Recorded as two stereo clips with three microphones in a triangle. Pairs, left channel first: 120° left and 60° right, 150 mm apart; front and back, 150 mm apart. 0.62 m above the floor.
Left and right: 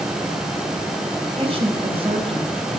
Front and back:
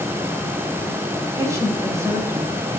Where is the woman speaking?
110° right, 4.5 m.